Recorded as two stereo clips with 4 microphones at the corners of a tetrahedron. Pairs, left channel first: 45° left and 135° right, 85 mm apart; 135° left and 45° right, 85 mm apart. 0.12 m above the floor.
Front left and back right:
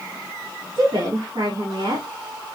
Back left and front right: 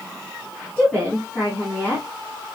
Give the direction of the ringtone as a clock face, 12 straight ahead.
No ringtone in this recording.